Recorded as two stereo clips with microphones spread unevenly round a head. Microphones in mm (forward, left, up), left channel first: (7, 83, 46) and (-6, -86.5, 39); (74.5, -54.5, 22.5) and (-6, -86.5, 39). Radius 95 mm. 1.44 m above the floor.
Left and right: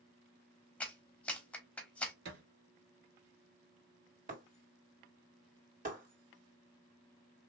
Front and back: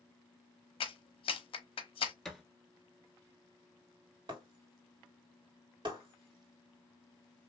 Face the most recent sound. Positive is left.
turn(degrees=-140)